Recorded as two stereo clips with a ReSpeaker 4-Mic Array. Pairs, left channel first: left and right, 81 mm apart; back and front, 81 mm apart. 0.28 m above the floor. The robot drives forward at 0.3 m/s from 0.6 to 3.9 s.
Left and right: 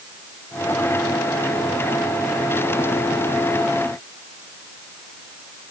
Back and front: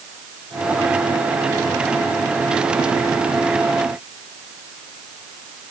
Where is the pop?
No pop in this recording.